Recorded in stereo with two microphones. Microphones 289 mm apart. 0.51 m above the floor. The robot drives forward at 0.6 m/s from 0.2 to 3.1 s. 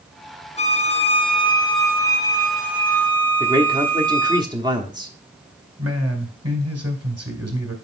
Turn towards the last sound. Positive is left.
turn(degrees=-55)  # may be behind; listen again after turning